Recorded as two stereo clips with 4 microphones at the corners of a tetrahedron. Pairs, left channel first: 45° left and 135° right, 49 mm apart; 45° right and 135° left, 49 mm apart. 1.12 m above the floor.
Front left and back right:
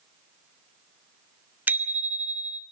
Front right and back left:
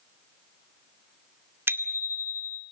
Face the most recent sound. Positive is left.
turn(degrees=175)